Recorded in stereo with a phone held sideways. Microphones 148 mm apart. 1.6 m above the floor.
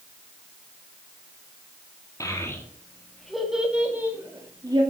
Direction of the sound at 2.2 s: 25° left (ahead or behind).